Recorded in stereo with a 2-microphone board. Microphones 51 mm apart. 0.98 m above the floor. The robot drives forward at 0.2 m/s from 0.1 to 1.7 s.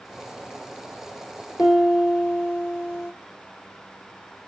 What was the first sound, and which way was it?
A piano, 50° left (ahead or behind).